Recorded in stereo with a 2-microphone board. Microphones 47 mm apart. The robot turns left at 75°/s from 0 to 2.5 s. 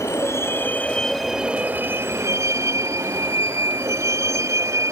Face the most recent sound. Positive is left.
turn(degrees=-85)